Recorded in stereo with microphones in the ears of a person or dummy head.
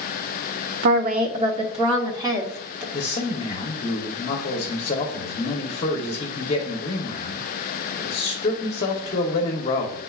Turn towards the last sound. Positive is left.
turn(degrees=30)  # may be behind; listen again after turning